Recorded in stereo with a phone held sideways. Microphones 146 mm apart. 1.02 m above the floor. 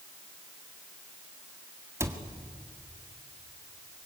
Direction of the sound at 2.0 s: 20° right (ahead or behind).